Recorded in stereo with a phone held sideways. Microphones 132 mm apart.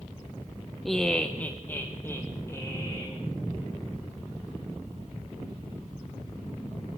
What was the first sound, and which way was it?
Laughter, centre (ahead or behind).